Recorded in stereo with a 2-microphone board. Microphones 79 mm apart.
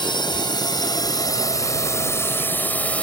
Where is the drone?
70° left (ahead or behind); by 3.0 s 15° left (ahead or behind).